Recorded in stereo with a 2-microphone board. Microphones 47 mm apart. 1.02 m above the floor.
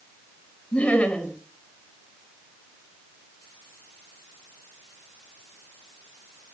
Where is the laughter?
25° left (ahead or behind), 7.5 m.